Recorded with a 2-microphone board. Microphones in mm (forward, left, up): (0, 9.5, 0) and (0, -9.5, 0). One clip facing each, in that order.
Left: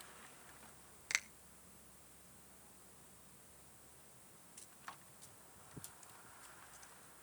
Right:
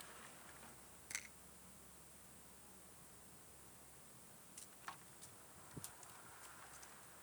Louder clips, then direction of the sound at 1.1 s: Left 11 dB; 55° left (ahead or behind).